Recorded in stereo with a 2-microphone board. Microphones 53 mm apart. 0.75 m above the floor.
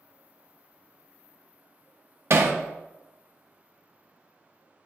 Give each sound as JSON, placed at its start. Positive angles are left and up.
{"t": 2.3, "sound": "hammering", "side_deg": -60, "distance_m": 0.5}